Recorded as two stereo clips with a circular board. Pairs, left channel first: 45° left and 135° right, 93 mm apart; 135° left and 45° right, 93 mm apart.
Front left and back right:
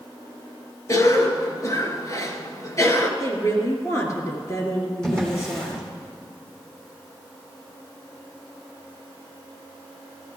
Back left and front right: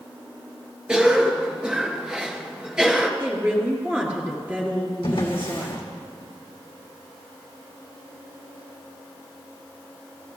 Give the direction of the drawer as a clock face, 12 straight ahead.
8 o'clock.